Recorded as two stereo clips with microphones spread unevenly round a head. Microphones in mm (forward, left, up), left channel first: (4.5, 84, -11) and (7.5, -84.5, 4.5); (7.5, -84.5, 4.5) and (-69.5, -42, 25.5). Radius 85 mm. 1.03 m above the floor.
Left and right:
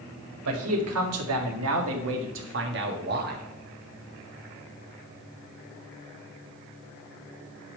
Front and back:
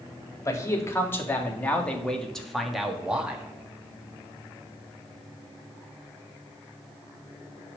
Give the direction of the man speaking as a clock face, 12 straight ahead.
3 o'clock.